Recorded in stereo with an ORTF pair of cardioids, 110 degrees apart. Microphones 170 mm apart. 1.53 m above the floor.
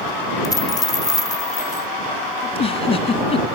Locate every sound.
0.4 s a dropped coin: 20° left
2.4 s a giggle: 35° left